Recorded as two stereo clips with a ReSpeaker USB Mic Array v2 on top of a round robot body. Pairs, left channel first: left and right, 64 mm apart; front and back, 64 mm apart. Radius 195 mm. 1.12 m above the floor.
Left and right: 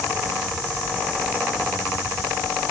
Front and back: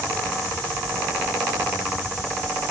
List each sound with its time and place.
Only background noise.